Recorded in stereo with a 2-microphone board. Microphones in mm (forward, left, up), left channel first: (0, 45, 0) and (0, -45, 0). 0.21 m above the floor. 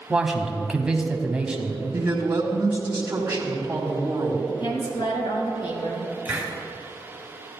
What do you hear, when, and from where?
0.1 s a man speaking: 10° right (ahead or behind), 1.0 m
1.9 s a woman speaking: 20° right (ahead or behind), 1.7 m
4.5 s a woman speaking: 65° left (ahead or behind), 2.5 m
6.2 s a hiss: 20° right (ahead or behind), 1.9 m